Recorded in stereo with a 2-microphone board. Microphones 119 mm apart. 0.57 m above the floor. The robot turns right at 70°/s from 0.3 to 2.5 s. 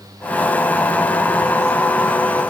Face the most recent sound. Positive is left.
No sound to turn to.